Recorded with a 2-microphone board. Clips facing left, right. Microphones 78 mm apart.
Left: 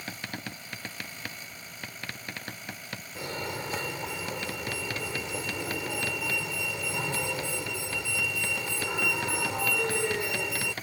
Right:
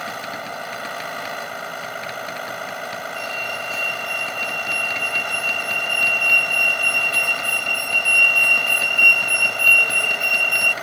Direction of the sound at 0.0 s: 75° right (ahead or behind).